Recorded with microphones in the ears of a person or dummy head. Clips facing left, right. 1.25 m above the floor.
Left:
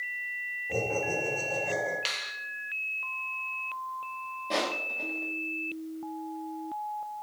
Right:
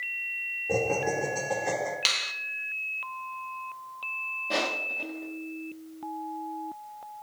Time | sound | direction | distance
0.7 | laughter | 85° right | 2 m
2.0 | a finger snap | 50° right (ahead or behind) | 0.5 m
4.5 | crushing | centre (ahead or behind) | 1.2 m